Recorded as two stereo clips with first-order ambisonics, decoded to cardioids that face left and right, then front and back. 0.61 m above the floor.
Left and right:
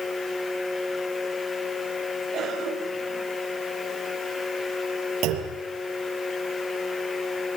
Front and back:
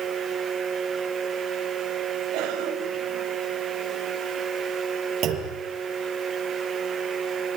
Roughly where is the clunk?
Behind right.